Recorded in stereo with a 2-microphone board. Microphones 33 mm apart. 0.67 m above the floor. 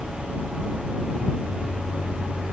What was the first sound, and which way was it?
Only background noise.